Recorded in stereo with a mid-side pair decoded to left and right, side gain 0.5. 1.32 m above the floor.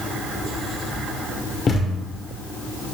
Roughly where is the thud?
Ahead left.